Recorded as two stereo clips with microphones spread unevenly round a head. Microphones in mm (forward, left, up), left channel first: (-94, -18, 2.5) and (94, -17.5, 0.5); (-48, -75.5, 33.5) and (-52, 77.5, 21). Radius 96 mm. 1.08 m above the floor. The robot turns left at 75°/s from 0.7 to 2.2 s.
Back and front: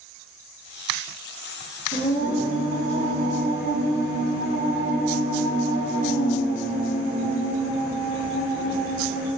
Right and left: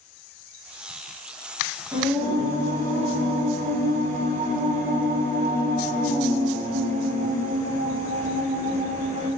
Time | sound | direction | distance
1.9 | singing | 160° left | 1.1 m